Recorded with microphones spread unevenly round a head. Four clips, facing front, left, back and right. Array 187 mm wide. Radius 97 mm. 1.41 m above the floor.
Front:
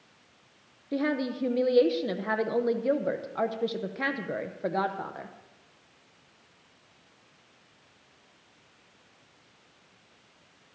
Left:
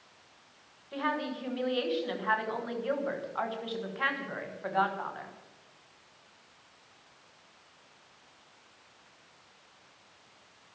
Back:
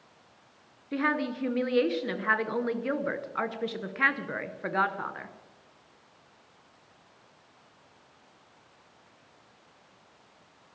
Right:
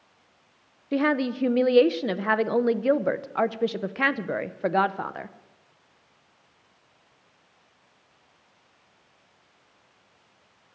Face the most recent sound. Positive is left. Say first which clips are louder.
# right 9 dB, front 1 dB
turn(degrees=-85)